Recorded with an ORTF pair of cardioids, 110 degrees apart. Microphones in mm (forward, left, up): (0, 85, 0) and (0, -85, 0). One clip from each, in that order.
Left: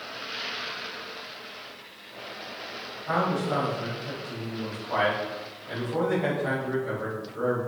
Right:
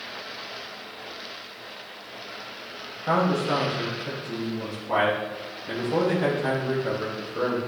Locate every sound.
3.1 s a man speaking: 70° right, 3 m